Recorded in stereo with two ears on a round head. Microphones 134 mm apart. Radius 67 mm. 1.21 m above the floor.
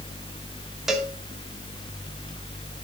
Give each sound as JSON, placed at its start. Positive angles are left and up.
{"t": 0.9, "sound": "a cowbell", "side_deg": -5, "distance_m": 1.8}